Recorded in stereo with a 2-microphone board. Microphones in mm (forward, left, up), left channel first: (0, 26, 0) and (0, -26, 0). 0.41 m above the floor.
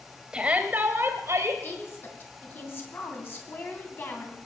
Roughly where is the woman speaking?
Left.